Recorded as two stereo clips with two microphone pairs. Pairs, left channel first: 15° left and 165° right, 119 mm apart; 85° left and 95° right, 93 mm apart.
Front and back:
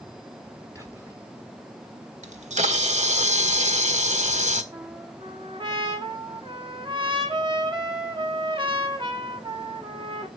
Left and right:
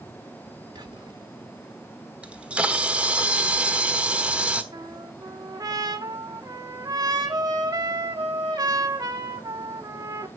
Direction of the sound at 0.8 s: 105° right.